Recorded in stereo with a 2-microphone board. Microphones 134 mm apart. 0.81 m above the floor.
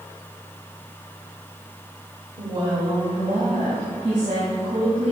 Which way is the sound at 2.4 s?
45° right (ahead or behind).